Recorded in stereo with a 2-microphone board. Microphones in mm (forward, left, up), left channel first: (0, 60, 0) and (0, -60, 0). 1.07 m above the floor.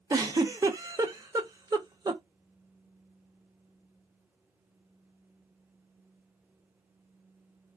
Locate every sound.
0.1 s a giggle: 25° right (ahead or behind), 0.7 m